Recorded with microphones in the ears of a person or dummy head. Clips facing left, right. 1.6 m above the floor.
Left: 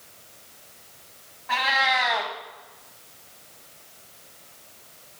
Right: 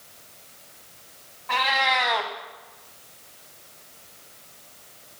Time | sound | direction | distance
1.5 | a cat meowing | 5° left (ahead or behind) | 1.0 m